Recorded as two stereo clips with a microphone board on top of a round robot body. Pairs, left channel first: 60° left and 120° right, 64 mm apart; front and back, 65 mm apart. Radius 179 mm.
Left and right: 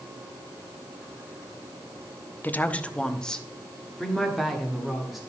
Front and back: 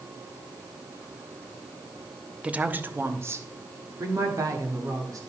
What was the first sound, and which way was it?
A woman speaking, 115° left.